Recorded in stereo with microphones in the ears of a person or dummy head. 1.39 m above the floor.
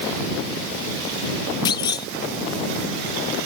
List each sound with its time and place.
1.6 s a clunk: 25° left (ahead or behind)